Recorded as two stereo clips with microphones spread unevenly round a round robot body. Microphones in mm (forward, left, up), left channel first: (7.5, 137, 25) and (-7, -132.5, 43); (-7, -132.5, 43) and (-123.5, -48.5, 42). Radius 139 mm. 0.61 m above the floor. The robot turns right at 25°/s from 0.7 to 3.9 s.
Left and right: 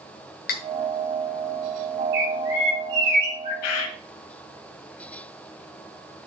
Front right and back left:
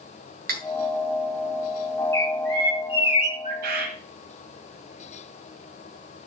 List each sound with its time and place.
0.5 s cutlery clinking: 145° left, 1.2 m
2.1 s a bird: 110° right, 4.5 m; by 3.5 s 75° right, 4.5 m
3.6 s a bird: 120° left, 1.7 m; by 4.0 s 125° left, 1.7 m